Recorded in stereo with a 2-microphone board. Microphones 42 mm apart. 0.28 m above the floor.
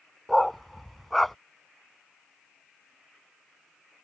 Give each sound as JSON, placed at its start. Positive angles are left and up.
{"t": 0.3, "sound": "a dog barking", "side_deg": 0}